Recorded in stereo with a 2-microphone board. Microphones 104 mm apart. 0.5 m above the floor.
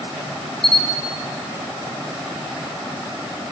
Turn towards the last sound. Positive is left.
turn(degrees=70)  # may be behind; listen again after turning